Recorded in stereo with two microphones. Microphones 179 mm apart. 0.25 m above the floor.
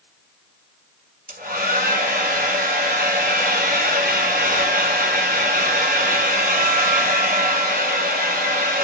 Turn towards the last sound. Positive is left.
turn(degrees=-55)  # may be behind; listen again after turning